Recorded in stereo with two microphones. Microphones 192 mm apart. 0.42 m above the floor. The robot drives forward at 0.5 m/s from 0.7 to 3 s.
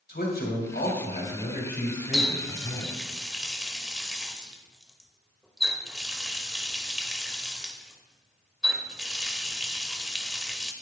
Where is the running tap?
Centre (ahead or behind), 1.2 m.